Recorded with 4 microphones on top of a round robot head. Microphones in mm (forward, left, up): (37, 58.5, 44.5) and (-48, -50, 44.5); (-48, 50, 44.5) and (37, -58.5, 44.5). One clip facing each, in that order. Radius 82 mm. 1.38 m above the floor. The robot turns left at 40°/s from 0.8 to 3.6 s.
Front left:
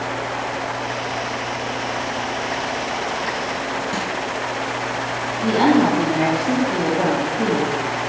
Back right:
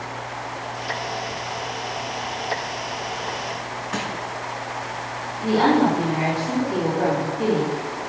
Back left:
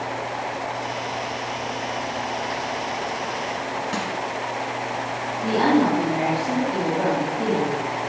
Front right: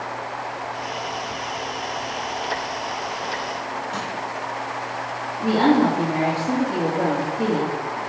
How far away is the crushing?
About 5 m.